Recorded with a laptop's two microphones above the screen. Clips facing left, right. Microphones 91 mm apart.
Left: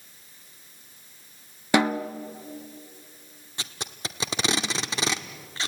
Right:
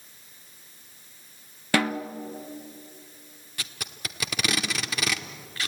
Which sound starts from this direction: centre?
A snare drum, at 1.7 s.